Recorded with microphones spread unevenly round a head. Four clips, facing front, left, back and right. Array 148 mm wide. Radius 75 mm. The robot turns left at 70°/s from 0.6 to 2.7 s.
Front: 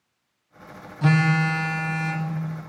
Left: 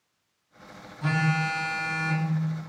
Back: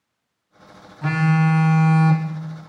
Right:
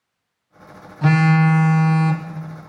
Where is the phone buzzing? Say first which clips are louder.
Right 10 dB, back 1 dB; 65° right, 0.6 m; by 2.3 s 160° right, 0.6 m.